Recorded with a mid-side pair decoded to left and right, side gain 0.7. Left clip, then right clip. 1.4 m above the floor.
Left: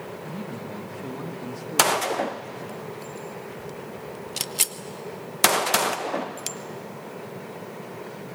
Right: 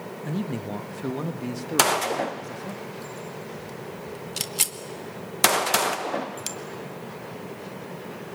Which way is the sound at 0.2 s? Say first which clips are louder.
Right 3 dB; 30° right.